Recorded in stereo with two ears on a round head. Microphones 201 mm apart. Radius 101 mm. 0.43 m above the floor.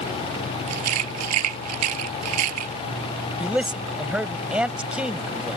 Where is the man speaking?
5° right (ahead or behind).